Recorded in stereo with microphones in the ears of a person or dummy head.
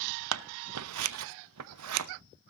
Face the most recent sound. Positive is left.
turn(degrees=-80)